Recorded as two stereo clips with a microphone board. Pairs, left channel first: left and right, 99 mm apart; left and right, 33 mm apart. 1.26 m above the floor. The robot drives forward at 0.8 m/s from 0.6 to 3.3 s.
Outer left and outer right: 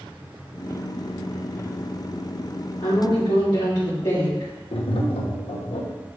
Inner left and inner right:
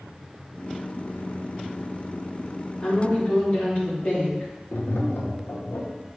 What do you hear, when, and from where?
2.8 s a woman speaking: 50° left (ahead or behind), 2 m; by 4.5 s 45° left (ahead or behind), 2.5 m
4.7 s tapping: 70° left (ahead or behind), 1.0 m